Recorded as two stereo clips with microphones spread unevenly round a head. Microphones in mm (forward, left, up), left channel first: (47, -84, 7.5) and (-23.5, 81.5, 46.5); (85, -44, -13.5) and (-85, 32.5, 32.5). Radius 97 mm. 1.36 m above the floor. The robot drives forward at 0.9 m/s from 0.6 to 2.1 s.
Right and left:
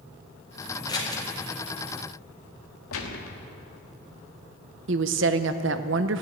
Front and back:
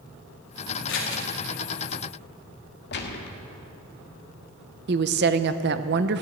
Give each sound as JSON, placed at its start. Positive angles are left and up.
{"t": 0.9, "sound": "scissors", "azimuth_deg": 5, "distance_m": 2.5}
{"t": 2.9, "sound": "a gunshot", "azimuth_deg": -60, "distance_m": 1.2}
{"t": 4.9, "sound": "a woman speaking", "azimuth_deg": 130, "distance_m": 0.6}